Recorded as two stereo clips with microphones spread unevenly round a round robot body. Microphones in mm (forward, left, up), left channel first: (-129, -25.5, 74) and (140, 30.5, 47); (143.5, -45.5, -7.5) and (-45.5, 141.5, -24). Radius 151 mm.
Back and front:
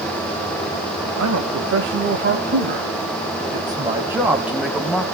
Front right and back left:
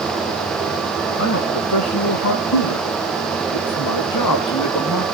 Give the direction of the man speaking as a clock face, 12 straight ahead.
12 o'clock.